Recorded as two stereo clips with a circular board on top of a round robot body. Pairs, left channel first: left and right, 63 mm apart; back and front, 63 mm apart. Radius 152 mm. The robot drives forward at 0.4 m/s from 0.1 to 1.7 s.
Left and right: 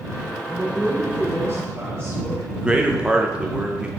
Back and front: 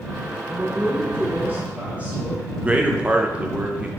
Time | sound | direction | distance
0.4 | a woman speaking | 40° right | 1.6 m
2.6 | a man speaking | 40° right | 0.6 m